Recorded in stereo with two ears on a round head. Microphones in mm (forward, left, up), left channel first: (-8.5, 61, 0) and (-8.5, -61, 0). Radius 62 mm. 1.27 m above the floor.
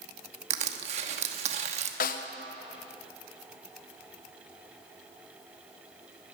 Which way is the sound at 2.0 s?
70° left (ahead or behind).